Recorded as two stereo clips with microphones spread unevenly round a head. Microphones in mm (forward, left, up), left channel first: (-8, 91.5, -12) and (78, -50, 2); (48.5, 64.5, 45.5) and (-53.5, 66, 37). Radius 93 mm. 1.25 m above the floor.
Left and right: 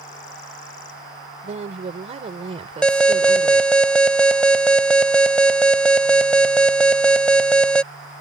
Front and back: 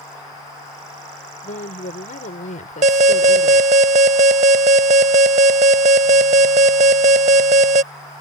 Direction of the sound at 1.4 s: 10° right.